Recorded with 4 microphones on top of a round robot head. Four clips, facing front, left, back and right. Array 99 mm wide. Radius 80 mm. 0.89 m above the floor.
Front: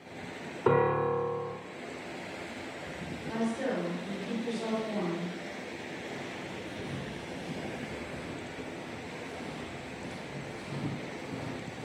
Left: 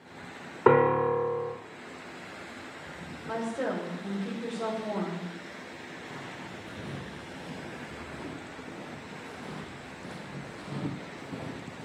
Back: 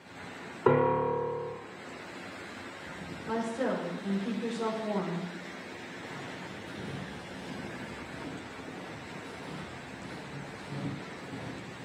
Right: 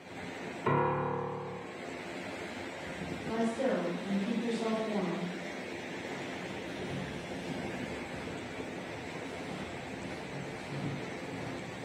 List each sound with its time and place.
0.7 s a piano: 95° left, 1.3 m
3.3 s a woman speaking: 120° left, 3.5 m
6.0 s footsteps: 105° left, 4 m; by 11.9 s 50° left, 1.1 m